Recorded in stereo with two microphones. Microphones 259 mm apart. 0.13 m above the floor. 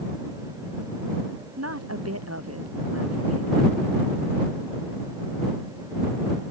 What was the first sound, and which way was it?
A woman speaking, 70° right (ahead or behind).